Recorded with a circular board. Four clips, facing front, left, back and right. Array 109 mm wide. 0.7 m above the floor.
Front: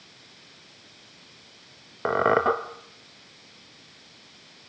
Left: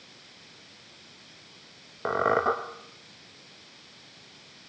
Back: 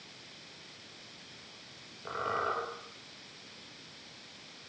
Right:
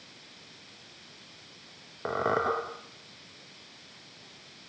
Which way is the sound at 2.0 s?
15° left.